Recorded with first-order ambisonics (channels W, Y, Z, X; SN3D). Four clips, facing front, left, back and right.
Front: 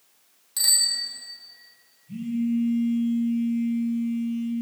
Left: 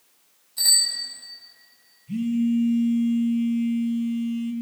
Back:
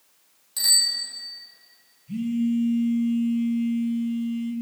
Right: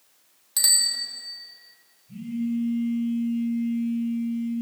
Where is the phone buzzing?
115° left, 1.6 m.